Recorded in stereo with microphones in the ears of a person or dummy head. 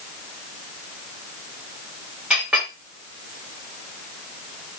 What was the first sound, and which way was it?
A clink, 5° right (ahead or behind).